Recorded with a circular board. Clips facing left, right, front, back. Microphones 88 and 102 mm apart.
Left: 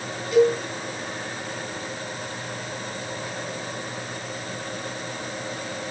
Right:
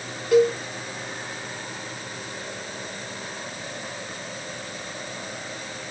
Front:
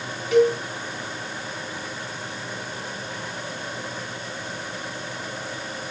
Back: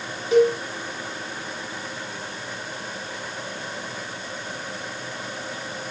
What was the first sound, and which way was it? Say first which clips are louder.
A cowbell: even, even; 120° right.